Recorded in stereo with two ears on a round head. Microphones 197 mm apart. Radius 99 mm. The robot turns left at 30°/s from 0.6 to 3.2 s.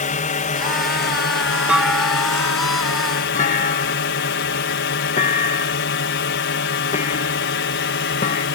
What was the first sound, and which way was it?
A drone, 140° left.